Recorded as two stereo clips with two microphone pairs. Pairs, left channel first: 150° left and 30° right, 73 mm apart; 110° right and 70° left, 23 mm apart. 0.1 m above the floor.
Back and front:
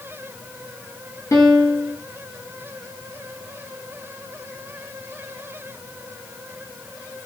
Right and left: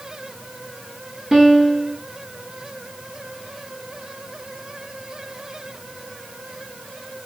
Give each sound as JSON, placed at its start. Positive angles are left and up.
{"t": 1.3, "sound": "a piano", "azimuth_deg": 135, "distance_m": 0.8}